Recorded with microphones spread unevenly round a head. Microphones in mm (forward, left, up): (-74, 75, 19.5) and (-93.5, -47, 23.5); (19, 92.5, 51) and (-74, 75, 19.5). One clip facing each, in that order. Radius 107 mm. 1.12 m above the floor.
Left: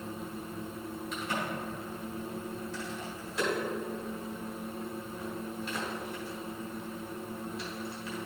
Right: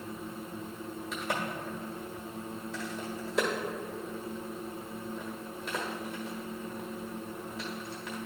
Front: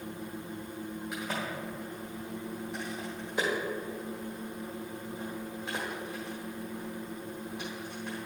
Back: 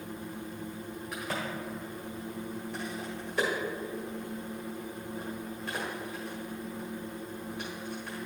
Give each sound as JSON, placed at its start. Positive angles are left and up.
{"t": 1.1, "sound": "a crack", "azimuth_deg": -55, "distance_m": 1.1}